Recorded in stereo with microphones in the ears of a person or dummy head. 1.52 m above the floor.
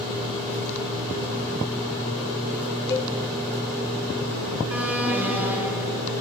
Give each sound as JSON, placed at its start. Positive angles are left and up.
{"t": 2.9, "sound": "a cowbell", "side_deg": 15, "distance_m": 1.5}
{"t": 4.7, "sound": "an alarm", "side_deg": -10, "distance_m": 1.8}